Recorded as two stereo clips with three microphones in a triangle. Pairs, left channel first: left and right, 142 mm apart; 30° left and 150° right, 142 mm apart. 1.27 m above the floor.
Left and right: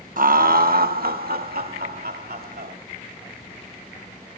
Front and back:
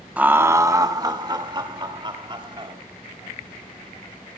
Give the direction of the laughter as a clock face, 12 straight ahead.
2 o'clock.